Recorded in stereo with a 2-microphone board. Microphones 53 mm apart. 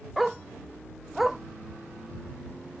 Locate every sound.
0.2 s a dog barking: 5° right (ahead or behind)